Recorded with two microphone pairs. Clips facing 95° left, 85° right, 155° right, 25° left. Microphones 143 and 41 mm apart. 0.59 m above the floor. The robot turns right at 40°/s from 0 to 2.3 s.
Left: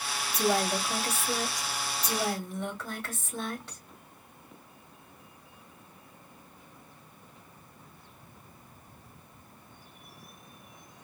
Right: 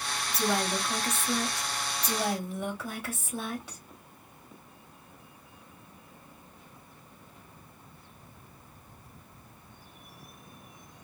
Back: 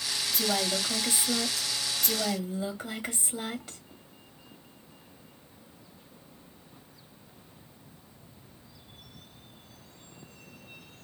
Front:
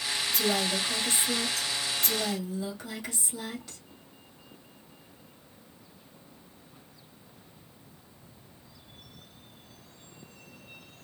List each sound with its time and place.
0.3 s a woman speaking: 135° left, 0.9 m; by 3.8 s 145° right, 0.9 m